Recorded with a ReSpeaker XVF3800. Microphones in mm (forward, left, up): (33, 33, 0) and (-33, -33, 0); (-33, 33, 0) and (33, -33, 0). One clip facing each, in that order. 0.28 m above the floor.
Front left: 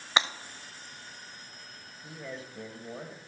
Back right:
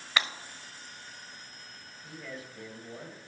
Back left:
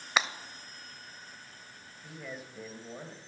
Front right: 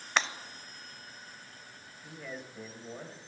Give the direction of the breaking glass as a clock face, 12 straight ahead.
10 o'clock.